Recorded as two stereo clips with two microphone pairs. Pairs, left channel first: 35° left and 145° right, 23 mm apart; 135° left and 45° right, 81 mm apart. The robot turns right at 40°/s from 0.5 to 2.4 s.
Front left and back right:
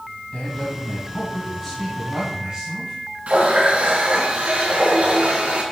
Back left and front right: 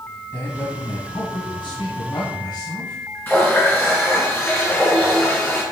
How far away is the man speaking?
About 2 m.